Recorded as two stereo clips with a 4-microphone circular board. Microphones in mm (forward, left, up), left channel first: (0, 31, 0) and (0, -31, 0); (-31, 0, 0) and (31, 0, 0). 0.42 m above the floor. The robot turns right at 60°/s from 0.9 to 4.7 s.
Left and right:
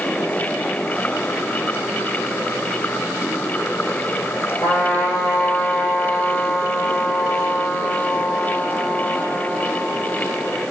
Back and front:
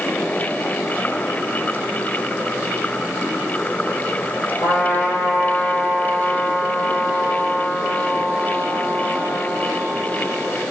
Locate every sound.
4.6 s a trumpet: 130° left, 4.5 m; by 10.6 s 135° left, 4.5 m